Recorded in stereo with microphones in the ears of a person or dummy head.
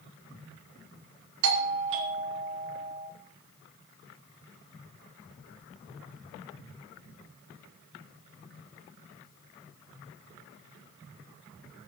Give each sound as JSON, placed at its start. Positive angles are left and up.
{"t": 1.4, "sound": "a doorbell", "side_deg": -70, "distance_m": 2.5}